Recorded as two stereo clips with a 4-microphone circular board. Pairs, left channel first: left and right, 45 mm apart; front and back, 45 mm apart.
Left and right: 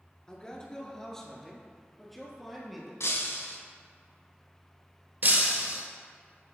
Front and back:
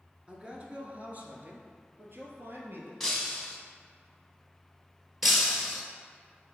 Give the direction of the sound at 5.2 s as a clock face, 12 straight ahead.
3 o'clock.